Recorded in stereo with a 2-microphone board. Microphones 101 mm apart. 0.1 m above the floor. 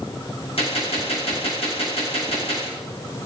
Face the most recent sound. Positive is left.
turn(degrees=80)